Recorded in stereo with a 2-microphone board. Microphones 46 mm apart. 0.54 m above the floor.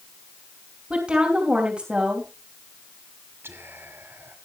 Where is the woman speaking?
20° right (ahead or behind), 3 m.